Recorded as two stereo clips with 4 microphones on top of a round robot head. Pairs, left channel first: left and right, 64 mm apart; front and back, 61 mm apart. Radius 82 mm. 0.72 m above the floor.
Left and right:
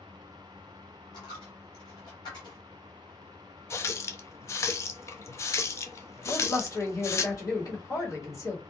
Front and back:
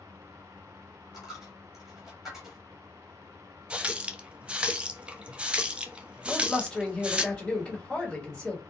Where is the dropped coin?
95° left, 1.6 m.